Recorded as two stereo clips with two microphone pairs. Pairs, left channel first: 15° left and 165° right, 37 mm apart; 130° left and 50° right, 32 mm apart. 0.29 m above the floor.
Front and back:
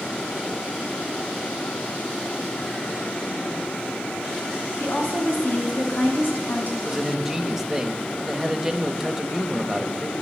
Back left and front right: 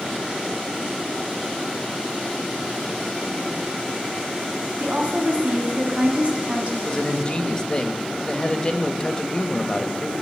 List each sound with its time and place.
4.8 s a woman speaking: 5° right, 2.5 m
6.8 s a man speaking: 125° left, 1.0 m